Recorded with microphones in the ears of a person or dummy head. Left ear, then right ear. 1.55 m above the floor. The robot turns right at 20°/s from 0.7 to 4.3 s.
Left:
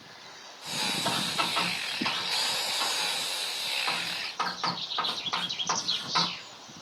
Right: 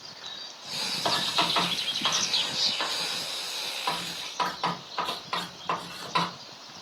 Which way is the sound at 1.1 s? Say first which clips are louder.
Right 7 dB; 50° right (ahead or behind).